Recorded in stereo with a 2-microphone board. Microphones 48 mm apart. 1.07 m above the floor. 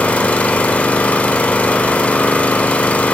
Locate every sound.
0.0 s an engine running: 25° left (ahead or behind), 1.0 m